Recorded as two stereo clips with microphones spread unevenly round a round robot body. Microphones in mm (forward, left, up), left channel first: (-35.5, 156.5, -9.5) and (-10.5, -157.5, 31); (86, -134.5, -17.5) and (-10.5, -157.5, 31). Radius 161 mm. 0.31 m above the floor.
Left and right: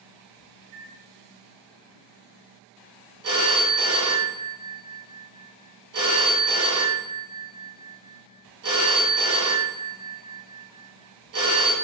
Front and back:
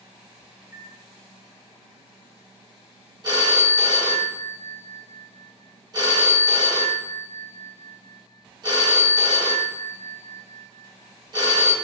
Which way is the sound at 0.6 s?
120° right.